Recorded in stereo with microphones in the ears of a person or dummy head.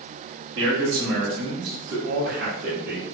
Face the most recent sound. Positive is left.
turn(degrees=-50)  # may be behind; listen again after turning